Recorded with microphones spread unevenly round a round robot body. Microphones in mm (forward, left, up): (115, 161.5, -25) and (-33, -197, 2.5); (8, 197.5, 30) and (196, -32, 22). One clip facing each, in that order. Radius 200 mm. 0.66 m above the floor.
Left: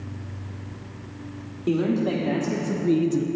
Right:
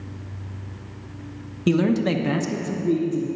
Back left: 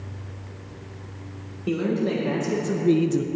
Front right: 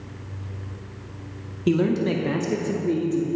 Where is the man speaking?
90° right, 1.0 m; by 3.3 s 95° left, 0.8 m.